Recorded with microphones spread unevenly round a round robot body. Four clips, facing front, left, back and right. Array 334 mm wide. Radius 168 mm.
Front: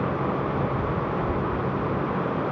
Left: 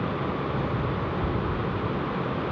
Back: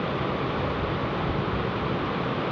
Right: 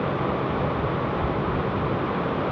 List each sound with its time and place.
Only background noise.